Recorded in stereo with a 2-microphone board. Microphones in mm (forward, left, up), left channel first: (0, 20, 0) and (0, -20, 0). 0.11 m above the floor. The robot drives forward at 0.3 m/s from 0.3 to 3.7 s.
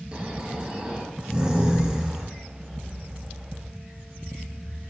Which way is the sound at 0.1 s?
35° right (ahead or behind).